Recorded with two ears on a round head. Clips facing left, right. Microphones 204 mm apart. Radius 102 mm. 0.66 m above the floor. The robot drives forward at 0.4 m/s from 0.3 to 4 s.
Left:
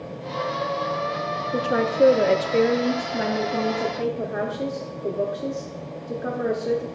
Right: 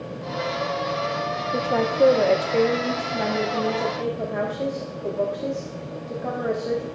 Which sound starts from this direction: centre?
A woman speaking, at 1.5 s.